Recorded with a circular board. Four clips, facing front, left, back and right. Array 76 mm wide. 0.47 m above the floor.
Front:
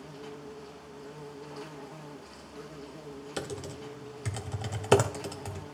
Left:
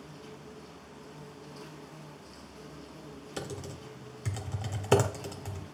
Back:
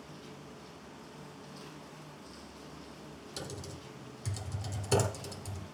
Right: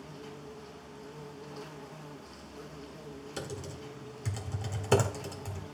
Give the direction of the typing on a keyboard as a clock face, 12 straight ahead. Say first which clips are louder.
Left 2 dB, front 7 dB; 11 o'clock.